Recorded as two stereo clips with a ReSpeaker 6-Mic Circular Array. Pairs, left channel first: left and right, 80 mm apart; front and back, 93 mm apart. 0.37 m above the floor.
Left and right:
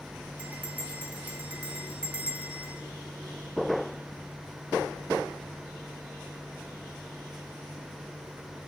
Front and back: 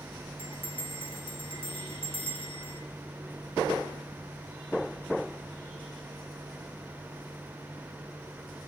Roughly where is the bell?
Ahead.